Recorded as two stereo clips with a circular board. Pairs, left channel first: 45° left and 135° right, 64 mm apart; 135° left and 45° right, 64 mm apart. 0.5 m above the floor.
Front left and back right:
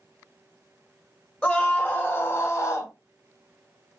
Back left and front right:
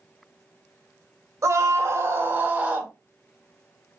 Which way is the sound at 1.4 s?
20° right.